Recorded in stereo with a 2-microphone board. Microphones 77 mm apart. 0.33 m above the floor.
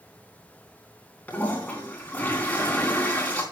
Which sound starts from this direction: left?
A toilet flushing, at 1.3 s.